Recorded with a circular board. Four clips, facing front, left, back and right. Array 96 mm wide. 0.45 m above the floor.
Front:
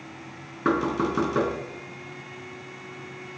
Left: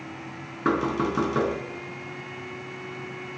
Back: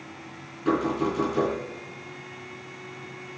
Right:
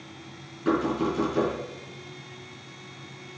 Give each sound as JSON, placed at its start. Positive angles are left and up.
{"t": 0.7, "sound": "knocking", "azimuth_deg": 45, "distance_m": 4.5}